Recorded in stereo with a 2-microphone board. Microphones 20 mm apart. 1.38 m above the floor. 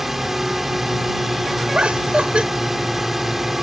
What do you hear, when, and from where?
0.0 s a drone: 15° right (ahead or behind)
1.7 s laughter: 80° right